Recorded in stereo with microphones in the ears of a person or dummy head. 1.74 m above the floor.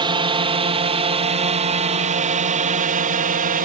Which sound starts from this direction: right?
A drone, at 0.0 s.